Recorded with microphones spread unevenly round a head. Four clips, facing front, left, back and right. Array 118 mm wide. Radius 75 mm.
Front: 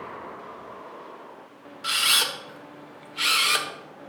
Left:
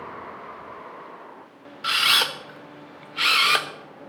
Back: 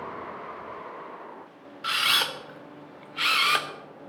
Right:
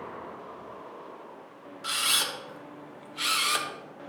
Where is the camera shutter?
85° left, 0.9 m.